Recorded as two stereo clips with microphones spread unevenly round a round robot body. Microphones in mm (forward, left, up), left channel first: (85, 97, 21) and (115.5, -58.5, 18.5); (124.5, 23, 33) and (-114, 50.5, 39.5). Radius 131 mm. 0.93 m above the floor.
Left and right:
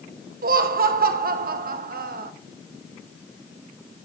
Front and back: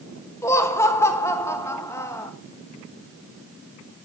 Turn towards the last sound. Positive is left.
turn(degrees=-85)